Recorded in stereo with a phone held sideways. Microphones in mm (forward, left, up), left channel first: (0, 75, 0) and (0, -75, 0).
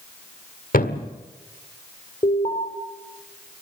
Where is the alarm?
45° left (ahead or behind), 5.5 m.